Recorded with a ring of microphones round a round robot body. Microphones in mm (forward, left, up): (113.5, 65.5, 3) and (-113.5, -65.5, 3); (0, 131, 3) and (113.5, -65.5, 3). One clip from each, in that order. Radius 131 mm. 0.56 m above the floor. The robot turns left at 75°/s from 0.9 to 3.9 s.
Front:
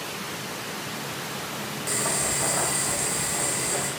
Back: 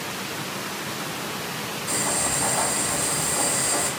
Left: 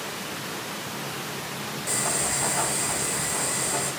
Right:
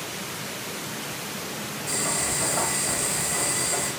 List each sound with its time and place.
1.9 s boiling: 50° left, 1.1 m; by 3.9 s 105° right, 1.1 m